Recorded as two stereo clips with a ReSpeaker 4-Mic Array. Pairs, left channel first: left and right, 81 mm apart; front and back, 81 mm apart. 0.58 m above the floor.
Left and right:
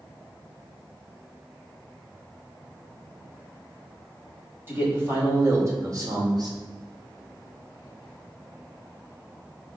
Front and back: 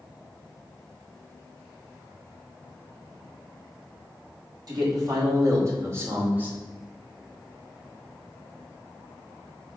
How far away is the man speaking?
About 2.5 m.